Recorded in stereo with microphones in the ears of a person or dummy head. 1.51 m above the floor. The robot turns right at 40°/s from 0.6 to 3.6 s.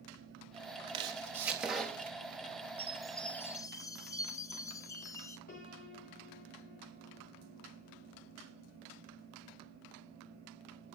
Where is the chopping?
35° right (ahead or behind), 3 m; by 2.2 s 15° left (ahead or behind), 3 m.